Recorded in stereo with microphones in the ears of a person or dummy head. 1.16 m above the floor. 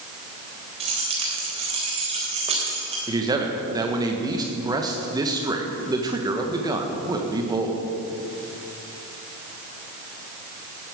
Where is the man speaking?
20° right (ahead or behind), 1.3 m.